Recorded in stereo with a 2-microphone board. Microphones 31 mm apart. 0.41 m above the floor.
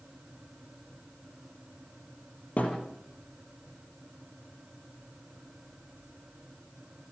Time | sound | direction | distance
2.6 | a thud | 50° left (ahead or behind) | 6 m